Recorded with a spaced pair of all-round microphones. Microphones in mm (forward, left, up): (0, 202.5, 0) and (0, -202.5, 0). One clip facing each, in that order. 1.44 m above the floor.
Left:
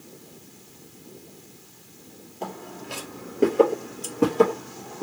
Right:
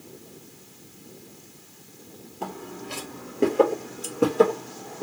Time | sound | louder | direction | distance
2.4 | footsteps | right 1 dB | 25° right (ahead or behind) | 1.5 m
4.0 | scissors | even | 15° left (ahead or behind) | 0.8 m